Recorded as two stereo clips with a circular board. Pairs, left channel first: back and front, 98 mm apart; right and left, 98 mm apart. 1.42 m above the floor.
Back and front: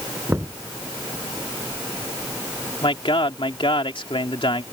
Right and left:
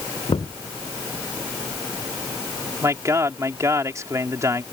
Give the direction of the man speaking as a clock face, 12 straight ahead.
7 o'clock.